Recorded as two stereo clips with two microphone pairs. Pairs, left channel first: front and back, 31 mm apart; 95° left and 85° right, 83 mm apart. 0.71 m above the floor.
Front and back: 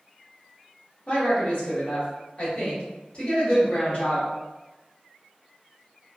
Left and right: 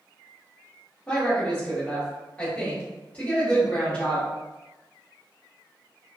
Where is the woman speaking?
25° left, 1.4 m.